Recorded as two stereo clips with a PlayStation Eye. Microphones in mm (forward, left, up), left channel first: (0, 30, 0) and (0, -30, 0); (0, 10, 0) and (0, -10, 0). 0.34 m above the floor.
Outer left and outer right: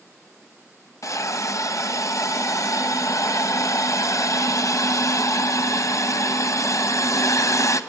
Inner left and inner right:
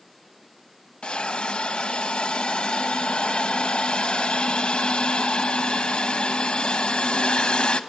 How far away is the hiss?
About 0.9 m.